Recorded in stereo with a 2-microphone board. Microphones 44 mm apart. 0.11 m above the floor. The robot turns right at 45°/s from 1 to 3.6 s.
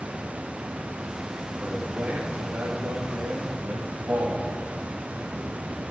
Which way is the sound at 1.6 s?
5° right (ahead or behind).